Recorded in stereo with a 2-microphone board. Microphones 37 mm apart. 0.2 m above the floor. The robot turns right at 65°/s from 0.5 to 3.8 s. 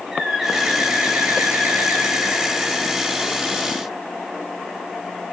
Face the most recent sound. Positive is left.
turn(degrees=45)